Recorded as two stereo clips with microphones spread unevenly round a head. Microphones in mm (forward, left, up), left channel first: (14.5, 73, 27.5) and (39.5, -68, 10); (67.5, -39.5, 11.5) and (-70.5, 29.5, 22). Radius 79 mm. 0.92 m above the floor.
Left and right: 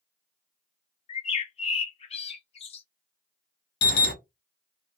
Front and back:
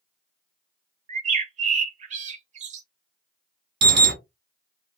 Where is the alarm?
125° left, 0.9 m.